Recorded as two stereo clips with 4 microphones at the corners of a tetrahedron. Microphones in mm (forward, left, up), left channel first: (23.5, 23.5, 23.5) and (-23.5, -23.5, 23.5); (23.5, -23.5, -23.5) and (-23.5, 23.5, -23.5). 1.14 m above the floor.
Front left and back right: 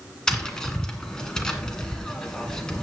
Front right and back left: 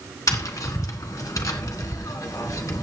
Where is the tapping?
35° right, 1.8 m.